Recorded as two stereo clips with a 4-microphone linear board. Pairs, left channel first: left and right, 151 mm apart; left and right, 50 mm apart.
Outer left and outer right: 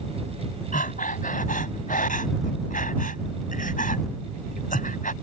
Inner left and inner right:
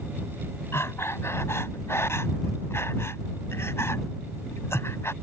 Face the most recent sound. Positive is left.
turn(degrees=60)  # may be behind; listen again after turning